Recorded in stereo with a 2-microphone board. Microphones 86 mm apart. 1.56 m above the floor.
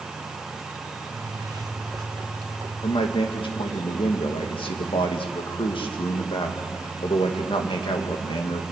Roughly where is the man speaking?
Left.